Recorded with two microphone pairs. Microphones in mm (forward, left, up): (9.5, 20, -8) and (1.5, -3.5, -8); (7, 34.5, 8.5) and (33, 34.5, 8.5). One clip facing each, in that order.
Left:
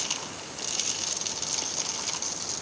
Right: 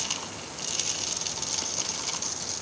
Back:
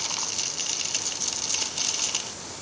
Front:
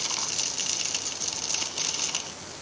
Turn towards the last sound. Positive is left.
No sound to turn to.